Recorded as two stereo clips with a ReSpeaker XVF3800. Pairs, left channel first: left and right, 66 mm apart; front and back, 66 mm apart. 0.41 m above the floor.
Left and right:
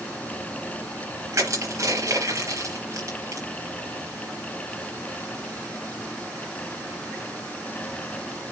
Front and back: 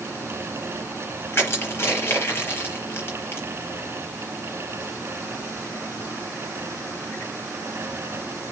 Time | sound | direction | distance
1.3 | crushing | 55° right | 6 m